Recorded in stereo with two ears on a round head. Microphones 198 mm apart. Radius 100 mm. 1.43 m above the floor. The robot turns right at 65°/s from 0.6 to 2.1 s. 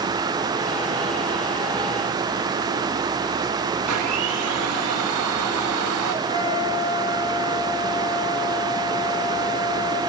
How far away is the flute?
About 4 m.